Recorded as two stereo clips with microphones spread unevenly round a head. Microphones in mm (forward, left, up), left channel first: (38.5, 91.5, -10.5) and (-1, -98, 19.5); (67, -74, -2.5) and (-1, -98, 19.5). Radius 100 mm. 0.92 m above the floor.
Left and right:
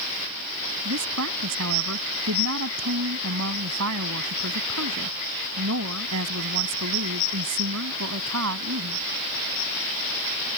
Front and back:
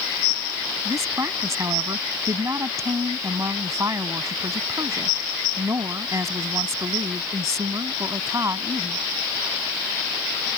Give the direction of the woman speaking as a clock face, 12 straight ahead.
4 o'clock.